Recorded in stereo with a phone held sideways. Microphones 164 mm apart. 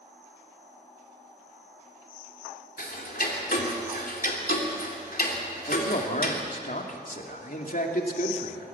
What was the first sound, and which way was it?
Ticking, 70° left (ahead or behind).